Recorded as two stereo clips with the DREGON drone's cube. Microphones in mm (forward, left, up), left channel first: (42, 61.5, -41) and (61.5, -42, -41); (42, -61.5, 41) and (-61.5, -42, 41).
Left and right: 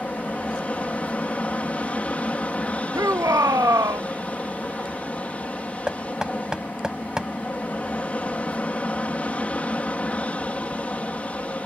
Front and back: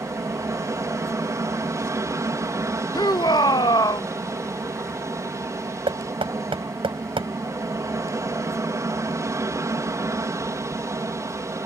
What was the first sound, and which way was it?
An aircraft, 165° left.